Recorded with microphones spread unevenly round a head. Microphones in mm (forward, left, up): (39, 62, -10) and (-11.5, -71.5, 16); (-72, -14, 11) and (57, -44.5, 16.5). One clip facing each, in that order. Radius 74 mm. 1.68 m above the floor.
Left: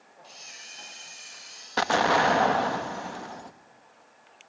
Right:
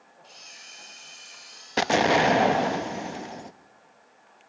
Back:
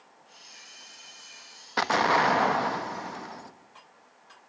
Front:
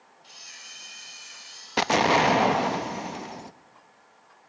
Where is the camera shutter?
15° right, 8.5 m.